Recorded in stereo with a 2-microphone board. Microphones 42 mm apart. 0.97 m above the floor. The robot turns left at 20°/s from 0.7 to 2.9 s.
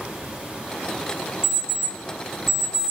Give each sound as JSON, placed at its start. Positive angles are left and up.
{"t": 1.4, "sound": "an alarm clock", "side_deg": 75, "distance_m": 1.9}